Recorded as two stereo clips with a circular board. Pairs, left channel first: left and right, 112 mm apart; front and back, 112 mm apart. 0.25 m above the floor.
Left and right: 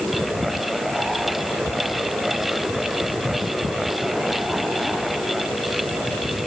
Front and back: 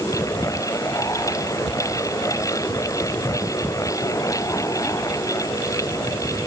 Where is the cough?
I don't hear a cough.